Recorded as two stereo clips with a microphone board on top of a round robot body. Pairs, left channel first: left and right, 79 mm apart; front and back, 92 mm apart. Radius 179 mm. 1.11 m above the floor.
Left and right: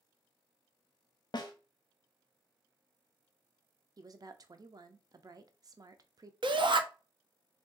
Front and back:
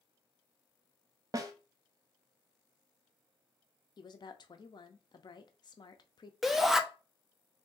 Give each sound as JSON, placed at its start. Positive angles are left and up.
{"t": 1.3, "sound": "a snare drum", "azimuth_deg": 125, "distance_m": 0.5}
{"t": 4.0, "sound": "a woman speaking", "azimuth_deg": -45, "distance_m": 0.5}
{"t": 6.4, "sound": "a shout", "azimuth_deg": -95, "distance_m": 0.7}